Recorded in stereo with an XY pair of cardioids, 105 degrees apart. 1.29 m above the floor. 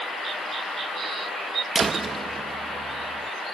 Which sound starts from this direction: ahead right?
A door slam, at 1.8 s.